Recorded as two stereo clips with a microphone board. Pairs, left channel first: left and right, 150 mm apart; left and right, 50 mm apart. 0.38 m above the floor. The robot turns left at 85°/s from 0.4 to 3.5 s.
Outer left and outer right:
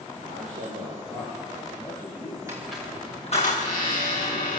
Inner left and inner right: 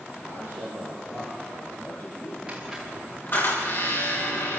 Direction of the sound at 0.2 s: 65° right.